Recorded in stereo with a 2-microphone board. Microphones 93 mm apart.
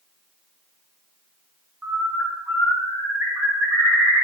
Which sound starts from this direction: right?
A bird, at 1.8 s.